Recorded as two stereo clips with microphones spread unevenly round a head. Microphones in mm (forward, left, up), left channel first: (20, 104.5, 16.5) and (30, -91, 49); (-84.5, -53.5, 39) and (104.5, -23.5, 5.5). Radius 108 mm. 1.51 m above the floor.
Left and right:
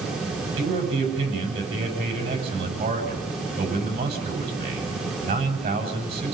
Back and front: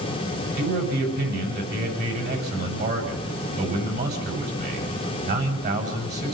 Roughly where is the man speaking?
Ahead right.